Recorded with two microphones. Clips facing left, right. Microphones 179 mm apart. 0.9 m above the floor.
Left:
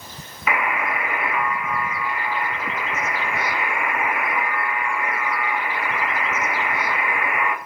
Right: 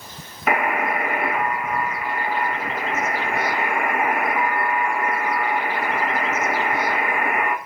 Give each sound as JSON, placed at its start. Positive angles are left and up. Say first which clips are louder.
{"t": 0.5, "sound": "a buzzer", "louder": "right 3 dB", "side_deg": -50, "distance_m": 1.4}